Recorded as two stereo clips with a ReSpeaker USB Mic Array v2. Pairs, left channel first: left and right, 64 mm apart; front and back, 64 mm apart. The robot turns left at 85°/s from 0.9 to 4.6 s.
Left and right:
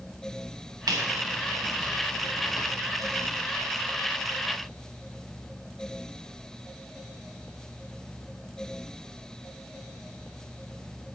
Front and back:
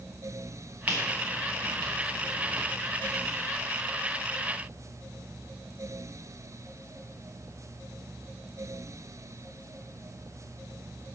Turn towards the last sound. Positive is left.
turn(degrees=-70)